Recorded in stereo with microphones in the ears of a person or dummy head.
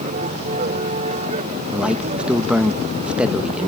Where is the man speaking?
Centre (ahead or behind).